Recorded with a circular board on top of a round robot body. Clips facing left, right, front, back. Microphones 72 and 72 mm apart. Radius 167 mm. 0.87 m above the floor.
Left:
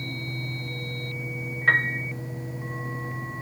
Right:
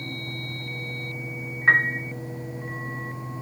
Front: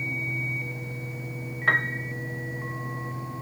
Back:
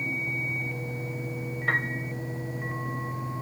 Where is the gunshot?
No gunshot in this recording.